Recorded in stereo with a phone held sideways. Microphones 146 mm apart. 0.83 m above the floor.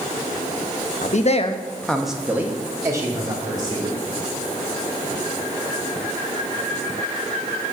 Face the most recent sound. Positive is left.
turn(degrees=-30)  # may be behind; listen again after turning